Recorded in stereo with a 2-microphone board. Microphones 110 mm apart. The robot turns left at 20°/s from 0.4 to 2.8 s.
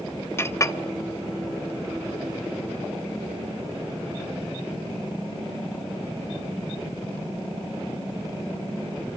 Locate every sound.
0.4 s a clink: 25° left (ahead or behind), 0.7 m; by 0.8 s 30° left (ahead or behind), 0.7 m